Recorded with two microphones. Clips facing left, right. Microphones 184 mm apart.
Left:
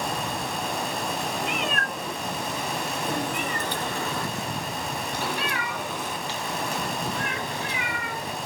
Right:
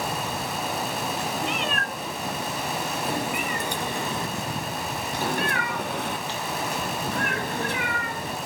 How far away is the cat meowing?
About 2.5 m.